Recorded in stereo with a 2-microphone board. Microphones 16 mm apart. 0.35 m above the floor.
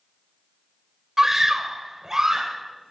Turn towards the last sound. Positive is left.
turn(degrees=-35)  # may be behind; listen again after turning